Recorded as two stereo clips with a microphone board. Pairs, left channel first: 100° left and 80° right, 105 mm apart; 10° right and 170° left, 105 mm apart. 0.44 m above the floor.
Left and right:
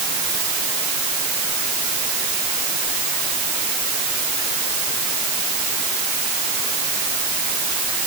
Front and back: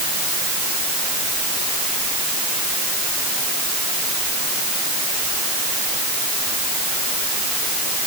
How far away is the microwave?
I don't hear a microwave.